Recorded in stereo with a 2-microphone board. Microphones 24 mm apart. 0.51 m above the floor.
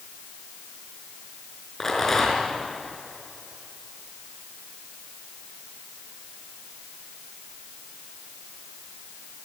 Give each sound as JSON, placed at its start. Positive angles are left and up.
{"t": 1.8, "sound": "a rattle", "side_deg": 10, "distance_m": 5.5}